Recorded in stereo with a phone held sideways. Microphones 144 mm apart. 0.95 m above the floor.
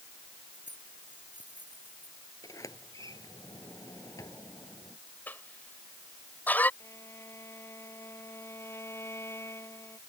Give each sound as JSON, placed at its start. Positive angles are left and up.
{"t": 0.5, "sound": "keys jangling", "side_deg": -60}
{"t": 2.4, "sound": "a sliding door", "side_deg": 25}
{"t": 5.3, "sound": "a cough", "side_deg": 10}
{"t": 6.8, "sound": "a violin", "side_deg": 20}